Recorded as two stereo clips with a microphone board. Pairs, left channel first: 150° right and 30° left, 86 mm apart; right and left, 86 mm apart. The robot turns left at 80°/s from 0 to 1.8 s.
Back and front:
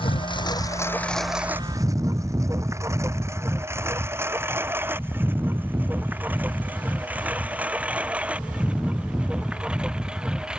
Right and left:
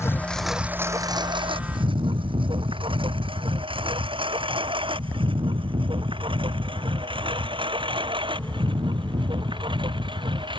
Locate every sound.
0.0 s a lawn mower: 150° right; by 10.6 s 110° left